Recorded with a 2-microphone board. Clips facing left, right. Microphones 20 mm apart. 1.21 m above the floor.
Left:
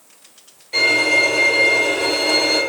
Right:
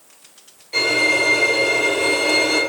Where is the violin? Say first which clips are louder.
Left 2 dB; 10° left (ahead or behind), 1.2 m.